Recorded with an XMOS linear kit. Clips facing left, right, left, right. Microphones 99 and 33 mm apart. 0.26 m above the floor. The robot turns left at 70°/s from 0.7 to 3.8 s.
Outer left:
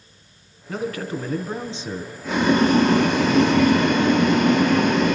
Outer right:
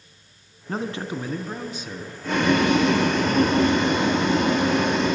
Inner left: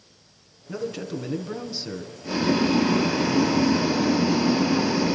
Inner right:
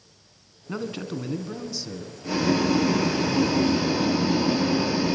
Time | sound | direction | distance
0.7 | a man speaking | 135° right | 2.5 m
2.2 | boiling | 175° left | 6 m